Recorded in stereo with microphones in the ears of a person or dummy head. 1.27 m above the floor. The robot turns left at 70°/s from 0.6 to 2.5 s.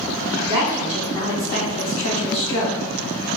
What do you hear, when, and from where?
0.4 s a woman speaking: 165° right, 1.4 m; by 2.8 s 65° left, 1.4 m